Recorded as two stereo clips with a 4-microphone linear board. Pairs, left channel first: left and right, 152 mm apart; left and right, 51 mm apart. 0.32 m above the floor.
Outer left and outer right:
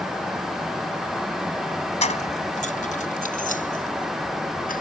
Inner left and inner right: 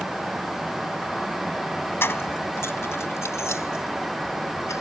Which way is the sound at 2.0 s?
50° left (ahead or behind).